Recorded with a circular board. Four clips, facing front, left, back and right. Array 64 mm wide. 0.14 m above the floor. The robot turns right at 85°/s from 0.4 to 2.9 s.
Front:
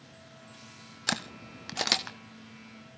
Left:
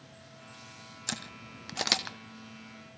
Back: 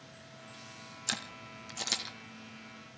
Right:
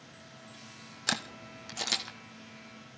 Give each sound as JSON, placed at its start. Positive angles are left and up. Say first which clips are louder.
{"t": 1.1, "sound": "a camera shutter", "louder": "right 6 dB, front 7 dB", "azimuth_deg": -35, "distance_m": 1.5}